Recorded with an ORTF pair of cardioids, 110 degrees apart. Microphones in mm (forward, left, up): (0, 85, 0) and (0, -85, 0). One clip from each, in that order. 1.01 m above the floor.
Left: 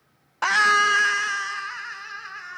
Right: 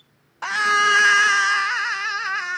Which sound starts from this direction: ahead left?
A scream, at 0.4 s.